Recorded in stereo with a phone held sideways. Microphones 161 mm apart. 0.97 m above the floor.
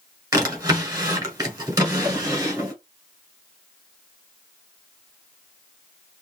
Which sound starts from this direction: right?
A drawer, at 0.3 s.